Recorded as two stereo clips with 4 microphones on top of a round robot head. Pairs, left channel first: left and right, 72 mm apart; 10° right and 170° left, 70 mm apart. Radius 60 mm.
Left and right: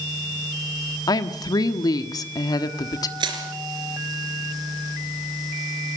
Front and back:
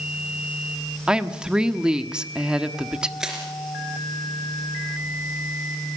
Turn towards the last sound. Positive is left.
turn(degrees=-105)